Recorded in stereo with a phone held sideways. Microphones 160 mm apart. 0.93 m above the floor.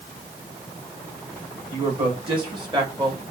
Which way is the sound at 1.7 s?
35° right (ahead or behind).